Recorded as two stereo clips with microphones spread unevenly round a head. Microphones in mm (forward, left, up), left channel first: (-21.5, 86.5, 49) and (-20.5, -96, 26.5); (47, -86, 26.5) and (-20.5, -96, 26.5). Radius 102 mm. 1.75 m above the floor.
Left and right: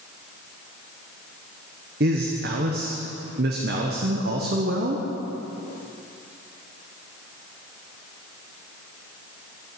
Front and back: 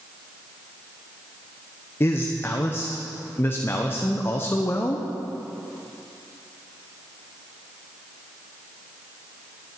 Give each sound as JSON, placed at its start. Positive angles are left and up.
{"t": 2.0, "sound": "a man speaking", "azimuth_deg": -45, "distance_m": 1.0}